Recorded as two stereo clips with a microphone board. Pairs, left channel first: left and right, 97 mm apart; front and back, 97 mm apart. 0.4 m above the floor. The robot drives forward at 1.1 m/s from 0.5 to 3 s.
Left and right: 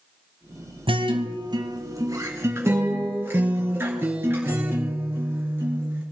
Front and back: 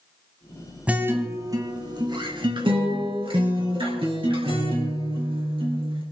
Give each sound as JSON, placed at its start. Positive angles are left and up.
{"t": 0.9, "sound": "a guitar", "azimuth_deg": -105, "distance_m": 1.2}